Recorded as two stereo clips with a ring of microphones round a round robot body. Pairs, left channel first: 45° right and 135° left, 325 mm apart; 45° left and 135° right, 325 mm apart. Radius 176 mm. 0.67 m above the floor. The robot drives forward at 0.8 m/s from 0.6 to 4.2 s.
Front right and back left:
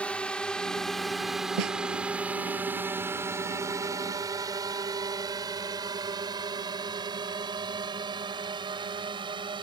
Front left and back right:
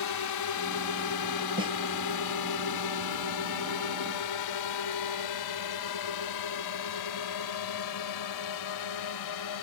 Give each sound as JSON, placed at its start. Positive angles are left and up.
{"t": 0.0, "sound": "a drone", "azimuth_deg": 40}
{"t": 1.6, "sound": "a snare drum", "azimuth_deg": 150}